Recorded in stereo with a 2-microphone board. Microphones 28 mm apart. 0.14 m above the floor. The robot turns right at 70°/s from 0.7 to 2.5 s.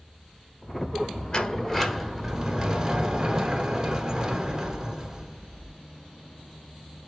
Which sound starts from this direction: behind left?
A sliding door, at 1.3 s.